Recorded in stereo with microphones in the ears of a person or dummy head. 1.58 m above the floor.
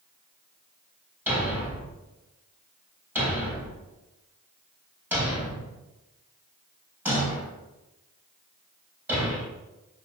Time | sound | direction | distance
1.3 | a thud | 10° right (ahead or behind) | 3.5 m